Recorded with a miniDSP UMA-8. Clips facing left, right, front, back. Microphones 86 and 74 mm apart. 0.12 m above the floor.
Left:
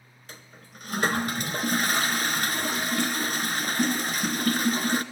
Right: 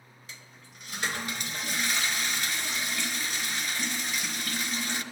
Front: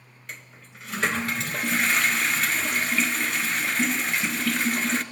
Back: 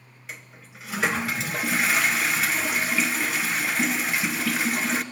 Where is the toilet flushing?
95° left, 1.2 m.